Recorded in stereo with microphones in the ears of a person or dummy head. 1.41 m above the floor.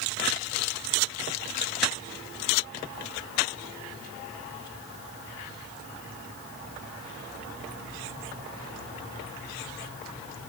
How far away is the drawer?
I don't hear a drawer.